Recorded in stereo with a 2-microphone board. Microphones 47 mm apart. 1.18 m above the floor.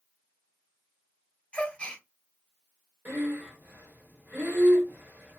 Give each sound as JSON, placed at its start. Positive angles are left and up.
{"t": 1.5, "sound": "a gasp", "side_deg": 20, "distance_m": 1.0}
{"t": 3.0, "sound": "breathing", "side_deg": -40, "distance_m": 1.2}